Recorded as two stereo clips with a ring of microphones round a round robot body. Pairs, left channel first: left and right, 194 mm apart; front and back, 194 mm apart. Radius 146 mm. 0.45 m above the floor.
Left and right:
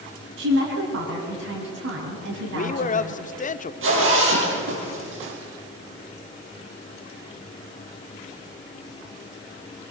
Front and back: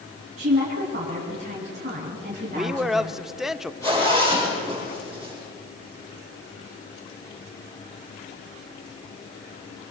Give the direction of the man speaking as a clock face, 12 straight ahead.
9 o'clock.